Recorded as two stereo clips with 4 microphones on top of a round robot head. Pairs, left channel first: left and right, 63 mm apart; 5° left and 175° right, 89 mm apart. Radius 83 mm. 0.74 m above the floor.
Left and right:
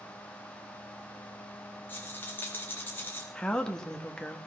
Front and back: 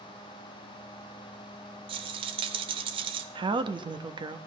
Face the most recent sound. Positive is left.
turn(degrees=165)